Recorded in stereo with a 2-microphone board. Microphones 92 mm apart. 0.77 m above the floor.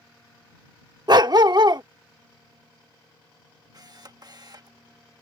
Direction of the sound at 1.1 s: 50° right (ahead or behind).